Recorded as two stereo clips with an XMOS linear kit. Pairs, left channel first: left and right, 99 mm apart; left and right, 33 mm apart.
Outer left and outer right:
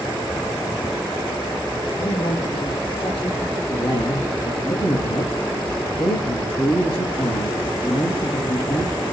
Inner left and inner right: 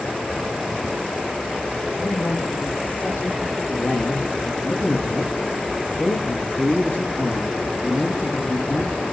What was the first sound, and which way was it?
A woman speaking, 80° left.